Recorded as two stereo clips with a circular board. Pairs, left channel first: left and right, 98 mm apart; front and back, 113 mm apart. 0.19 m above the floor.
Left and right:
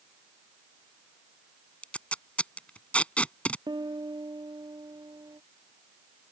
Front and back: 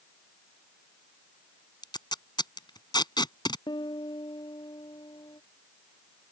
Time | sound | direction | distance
1.8 | tape being pulled | 20° left | ?
3.7 | a piano | 45° right | ?